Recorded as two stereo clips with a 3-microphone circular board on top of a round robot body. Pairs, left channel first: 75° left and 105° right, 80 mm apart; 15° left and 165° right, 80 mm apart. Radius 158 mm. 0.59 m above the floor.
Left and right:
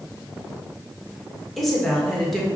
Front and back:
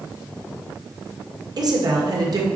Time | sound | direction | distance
1.6 | a woman speaking | 160° left | 2 m